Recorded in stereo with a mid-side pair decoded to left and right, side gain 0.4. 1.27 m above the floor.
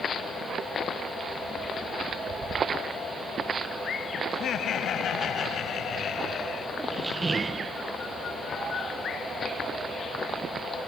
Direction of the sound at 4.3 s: 70° left.